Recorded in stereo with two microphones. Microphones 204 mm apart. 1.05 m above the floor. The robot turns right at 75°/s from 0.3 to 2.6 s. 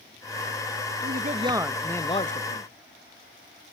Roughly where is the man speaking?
Ahead right.